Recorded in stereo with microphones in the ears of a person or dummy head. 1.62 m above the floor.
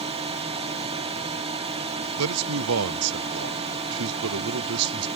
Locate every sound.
0.0 s a drone: 25° right (ahead or behind)
2.2 s a man speaking: 75° right (ahead or behind)